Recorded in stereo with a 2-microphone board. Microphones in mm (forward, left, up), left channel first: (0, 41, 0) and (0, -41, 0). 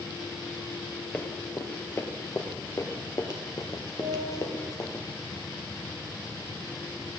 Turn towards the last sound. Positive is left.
turn(degrees=-55)  # may be behind; listen again after turning